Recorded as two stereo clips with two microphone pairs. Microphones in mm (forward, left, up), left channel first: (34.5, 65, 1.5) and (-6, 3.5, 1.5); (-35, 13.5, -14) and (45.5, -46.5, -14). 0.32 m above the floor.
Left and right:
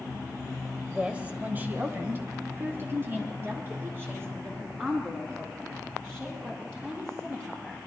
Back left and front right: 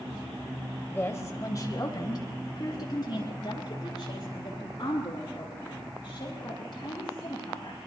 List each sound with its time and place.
0.9 s a woman speaking: 175° left, 1.1 m; by 7.8 s 175° right, 10.5 m